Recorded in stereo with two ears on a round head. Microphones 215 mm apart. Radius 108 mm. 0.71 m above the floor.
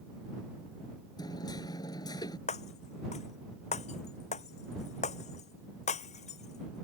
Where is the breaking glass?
30° left (ahead or behind).